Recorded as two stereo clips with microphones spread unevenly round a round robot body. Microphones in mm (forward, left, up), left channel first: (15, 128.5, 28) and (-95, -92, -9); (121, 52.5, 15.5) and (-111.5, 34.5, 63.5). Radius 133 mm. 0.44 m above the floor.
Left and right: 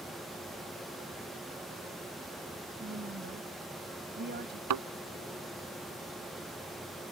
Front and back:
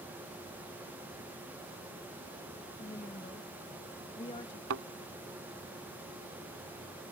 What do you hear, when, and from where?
2.8 s a woman speaking: 65° right
4.7 s a thud: 130° right